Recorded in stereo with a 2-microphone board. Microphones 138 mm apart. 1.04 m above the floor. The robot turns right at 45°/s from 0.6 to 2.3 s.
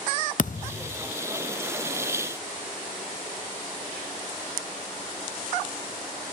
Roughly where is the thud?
Left.